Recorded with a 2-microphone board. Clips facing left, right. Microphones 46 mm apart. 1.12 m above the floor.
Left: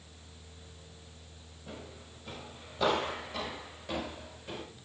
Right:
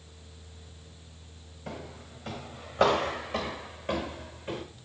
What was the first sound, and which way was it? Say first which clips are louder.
Footsteps: right 5 dB; 70° right (ahead or behind).